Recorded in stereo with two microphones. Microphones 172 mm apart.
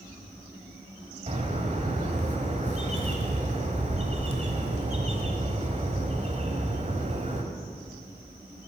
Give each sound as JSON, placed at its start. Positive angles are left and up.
{"t": 1.3, "sound": "a bird", "side_deg": -40, "distance_m": 1.3}